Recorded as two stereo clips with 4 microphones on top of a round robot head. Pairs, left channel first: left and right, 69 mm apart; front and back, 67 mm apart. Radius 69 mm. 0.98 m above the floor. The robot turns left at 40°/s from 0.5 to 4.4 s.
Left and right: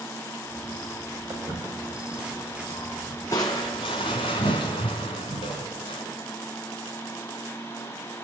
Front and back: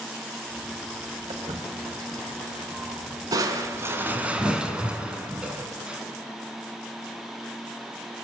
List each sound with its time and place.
1.3 s footsteps: 150° right, 7 m; by 3.2 s 145° left, 6 m
3.3 s crushing: 150° left, 2 m; by 6.0 s 105° left, 2 m